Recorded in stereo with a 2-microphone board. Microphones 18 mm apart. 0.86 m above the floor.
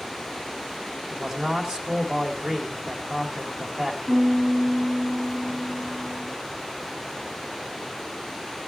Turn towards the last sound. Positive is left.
turn(degrees=0)  # may be behind; listen again after turning